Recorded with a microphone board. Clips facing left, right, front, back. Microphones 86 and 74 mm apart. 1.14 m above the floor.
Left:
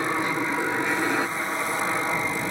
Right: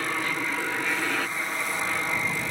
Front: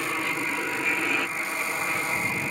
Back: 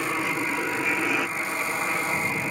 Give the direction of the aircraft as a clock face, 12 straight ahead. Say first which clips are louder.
Left 4 dB, back 2 dB; 8 o'clock.